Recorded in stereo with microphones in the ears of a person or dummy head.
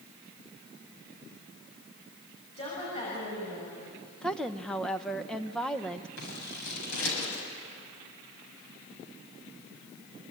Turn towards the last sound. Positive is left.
turn(degrees=75)  # may be behind; listen again after turning